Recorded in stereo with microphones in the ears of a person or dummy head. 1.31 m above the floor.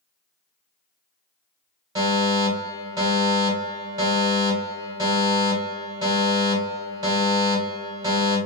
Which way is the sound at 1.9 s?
25° right (ahead or behind).